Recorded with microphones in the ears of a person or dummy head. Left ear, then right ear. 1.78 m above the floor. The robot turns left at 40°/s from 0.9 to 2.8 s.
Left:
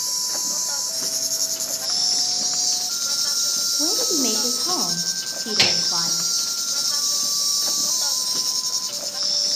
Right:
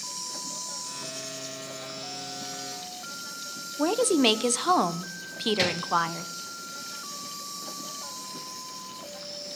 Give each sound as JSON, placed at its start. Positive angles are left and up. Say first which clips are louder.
{"t": 0.0, "sound": "an insect", "louder": "left 11 dB", "azimuth_deg": 130, "distance_m": 0.8}
{"t": 3.8, "sound": "a woman speaking", "louder": "right 3 dB", "side_deg": -50, "distance_m": 1.0}
{"t": 5.6, "sound": "a gunshot", "louder": "left 11 dB", "side_deg": 25, "distance_m": 0.7}